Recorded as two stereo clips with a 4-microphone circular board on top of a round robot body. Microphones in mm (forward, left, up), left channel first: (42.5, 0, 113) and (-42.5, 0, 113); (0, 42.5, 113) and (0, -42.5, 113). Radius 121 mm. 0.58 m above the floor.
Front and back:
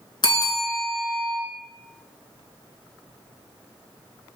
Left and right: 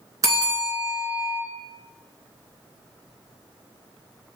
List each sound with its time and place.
0.2 s a bell: 40° right, 3 m